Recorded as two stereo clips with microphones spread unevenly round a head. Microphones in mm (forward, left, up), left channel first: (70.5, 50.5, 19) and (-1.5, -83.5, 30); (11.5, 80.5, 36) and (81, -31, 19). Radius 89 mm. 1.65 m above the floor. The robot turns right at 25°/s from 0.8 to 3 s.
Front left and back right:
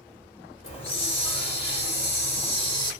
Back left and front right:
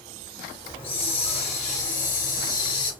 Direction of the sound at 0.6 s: 80° left.